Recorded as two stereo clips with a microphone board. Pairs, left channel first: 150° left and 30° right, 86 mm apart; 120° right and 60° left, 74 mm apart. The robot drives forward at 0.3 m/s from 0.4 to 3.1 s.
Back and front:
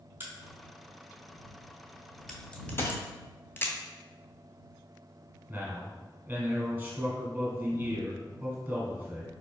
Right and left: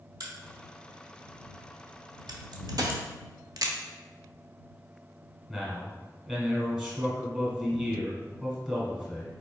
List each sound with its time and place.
0.2 s a crack: 35° left, 1.1 m; by 3.7 s 85° left, 0.7 m
2.8 s a dropped coin: 90° left, 0.7 m; by 3.0 s 95° left, 0.7 m
5.5 s a man speaking: 5° right, 1.1 m